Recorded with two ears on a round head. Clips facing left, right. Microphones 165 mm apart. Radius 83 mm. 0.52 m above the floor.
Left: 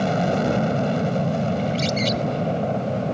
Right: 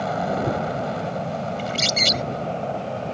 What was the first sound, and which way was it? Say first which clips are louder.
An aircraft: left 3 dB; 30° left (ahead or behind).